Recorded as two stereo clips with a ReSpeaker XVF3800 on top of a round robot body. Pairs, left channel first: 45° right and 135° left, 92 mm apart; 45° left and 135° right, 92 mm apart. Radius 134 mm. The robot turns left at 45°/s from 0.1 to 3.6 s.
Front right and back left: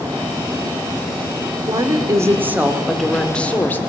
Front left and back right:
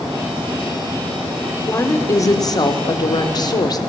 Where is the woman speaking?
105° left, 2 m; by 3.8 s 20° left, 2 m.